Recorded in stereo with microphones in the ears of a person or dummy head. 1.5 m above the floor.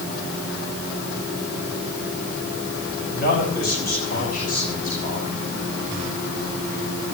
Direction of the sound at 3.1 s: 50° left (ahead or behind).